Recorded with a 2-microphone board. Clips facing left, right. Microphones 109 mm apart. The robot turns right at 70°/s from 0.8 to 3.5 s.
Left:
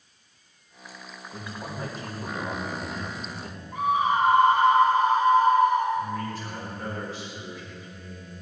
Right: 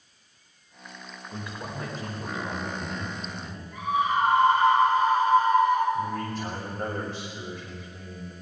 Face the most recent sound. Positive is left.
turn(degrees=-60)  # may be behind; listen again after turning